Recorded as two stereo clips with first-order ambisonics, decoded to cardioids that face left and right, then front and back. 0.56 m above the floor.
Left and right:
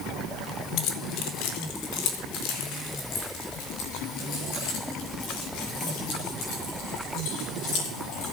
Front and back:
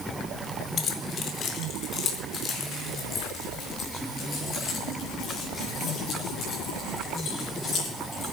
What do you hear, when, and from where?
0.8 s keys jangling: 60° left, 1.8 m; by 8.3 s 65° left, 13 m